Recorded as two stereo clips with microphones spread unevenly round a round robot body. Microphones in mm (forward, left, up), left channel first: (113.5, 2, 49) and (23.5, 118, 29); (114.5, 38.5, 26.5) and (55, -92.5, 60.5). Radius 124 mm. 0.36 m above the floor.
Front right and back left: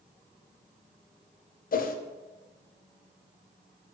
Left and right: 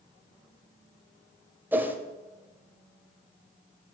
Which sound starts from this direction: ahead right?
A whoosh, at 1.7 s.